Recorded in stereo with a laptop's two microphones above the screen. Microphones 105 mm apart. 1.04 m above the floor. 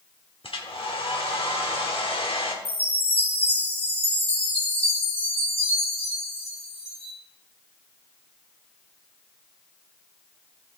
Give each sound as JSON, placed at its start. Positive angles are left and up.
{"t": 0.4, "sound": "a hair dryer", "side_deg": 65, "distance_m": 1.1}
{"t": 2.6, "sound": "a chime", "side_deg": 85, "distance_m": 3.5}